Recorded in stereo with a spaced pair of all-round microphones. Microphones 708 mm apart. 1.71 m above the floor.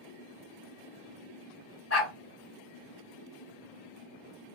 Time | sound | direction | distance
1.9 | a dog barking | 20° left (ahead or behind) | 1.7 m